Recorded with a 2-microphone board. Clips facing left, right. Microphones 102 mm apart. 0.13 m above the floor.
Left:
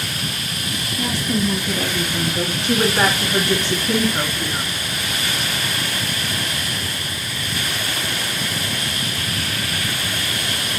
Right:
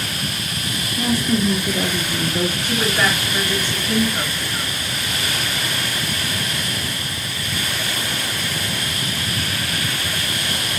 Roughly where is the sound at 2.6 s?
Left.